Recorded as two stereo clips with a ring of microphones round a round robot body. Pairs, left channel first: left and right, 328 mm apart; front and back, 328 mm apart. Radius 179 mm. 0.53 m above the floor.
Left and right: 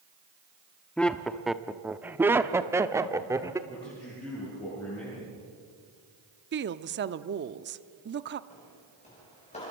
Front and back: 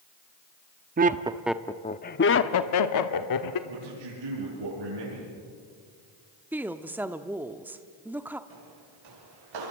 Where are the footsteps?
165° left, 9 m.